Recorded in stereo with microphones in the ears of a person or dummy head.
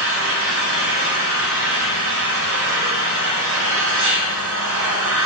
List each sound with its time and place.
0.0 s an engine running: 70° right (ahead or behind), 2 m